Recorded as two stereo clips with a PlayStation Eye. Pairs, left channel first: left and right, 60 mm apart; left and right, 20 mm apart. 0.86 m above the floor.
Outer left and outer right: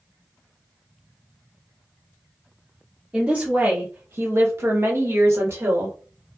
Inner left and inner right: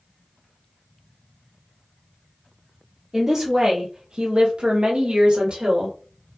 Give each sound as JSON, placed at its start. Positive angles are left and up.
{"t": 3.1, "sound": "a woman speaking", "side_deg": -20, "distance_m": 0.9}